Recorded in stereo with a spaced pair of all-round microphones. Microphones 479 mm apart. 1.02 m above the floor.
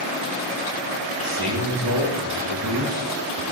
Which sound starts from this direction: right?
A man speaking, at 1.2 s.